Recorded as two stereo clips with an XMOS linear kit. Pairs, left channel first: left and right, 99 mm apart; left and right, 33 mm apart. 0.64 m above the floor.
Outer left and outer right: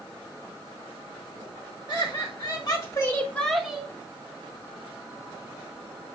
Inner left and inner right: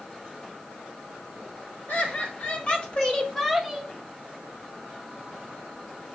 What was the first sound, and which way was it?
Laughter, 55° left (ahead or behind).